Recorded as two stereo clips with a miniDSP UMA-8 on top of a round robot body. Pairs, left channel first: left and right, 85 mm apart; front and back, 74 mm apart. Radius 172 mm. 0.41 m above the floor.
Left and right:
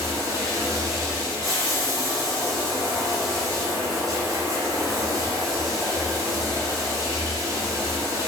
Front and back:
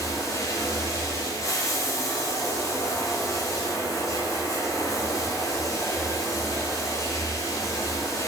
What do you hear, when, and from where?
0.0 s running water: 45° right, 3 m